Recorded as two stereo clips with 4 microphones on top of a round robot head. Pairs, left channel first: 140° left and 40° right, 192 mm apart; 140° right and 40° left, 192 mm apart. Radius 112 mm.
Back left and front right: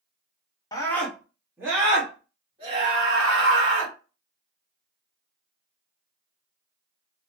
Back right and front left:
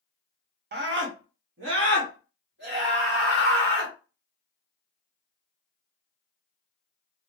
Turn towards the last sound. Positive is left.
turn(degrees=10)